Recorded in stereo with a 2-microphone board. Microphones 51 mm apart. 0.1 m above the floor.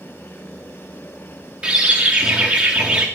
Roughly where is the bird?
Right.